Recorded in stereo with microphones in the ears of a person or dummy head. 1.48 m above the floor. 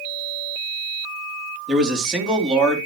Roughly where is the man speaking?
Centre.